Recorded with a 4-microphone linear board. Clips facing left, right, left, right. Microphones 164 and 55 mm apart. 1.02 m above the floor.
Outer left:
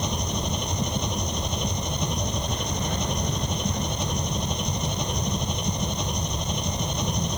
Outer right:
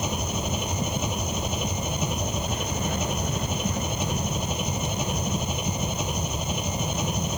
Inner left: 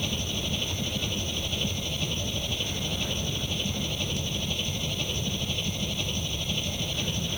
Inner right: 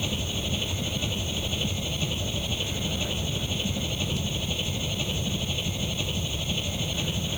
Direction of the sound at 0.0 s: 5° right (ahead or behind).